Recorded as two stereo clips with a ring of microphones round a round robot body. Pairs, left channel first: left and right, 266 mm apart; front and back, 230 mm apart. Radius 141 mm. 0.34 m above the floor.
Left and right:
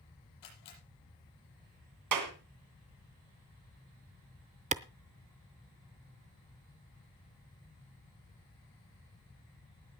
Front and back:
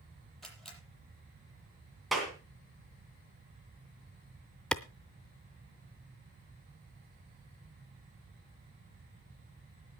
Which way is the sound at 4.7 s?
80° right.